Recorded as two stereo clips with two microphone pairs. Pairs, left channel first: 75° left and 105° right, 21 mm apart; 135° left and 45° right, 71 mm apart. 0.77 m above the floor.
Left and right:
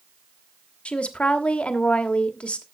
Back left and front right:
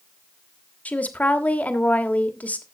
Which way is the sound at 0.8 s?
70° left.